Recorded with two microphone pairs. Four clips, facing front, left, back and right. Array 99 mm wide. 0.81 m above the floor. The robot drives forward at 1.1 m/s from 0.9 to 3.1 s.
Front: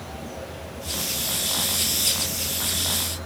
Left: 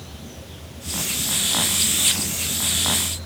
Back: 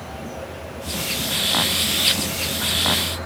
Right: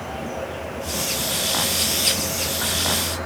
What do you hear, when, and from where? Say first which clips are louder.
0.0 s an insect: right 12 dB, back 3 dB; 100° right; by 3.3 s 110° right